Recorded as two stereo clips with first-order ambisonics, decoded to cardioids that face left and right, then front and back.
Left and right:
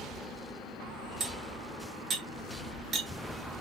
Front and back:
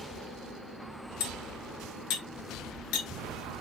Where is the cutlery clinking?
25° right, 2 m.